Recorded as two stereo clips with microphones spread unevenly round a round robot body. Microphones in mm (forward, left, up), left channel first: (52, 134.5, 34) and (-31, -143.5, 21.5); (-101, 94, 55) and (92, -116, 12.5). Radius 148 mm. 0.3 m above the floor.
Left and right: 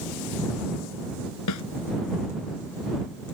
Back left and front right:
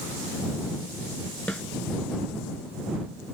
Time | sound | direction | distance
1.5 | a snare drum | 45° left | ?